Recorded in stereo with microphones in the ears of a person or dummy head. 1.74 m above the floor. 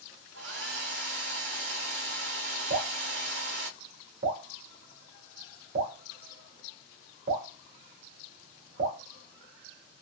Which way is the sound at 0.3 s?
70° right (ahead or behind).